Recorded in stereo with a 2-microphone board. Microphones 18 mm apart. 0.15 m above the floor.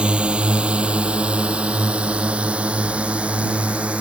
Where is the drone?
60° right (ahead or behind); by 4.0 s 80° right.